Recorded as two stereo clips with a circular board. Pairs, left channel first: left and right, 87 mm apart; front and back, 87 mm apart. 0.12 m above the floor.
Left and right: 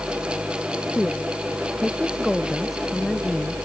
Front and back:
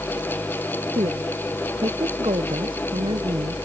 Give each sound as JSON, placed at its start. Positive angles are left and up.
{"t": 0.9, "sound": "a woman speaking", "azimuth_deg": 180}